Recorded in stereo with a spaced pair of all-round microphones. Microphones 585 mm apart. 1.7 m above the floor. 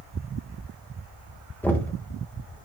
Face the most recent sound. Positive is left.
turn(degrees=5)  # may be behind; listen again after turning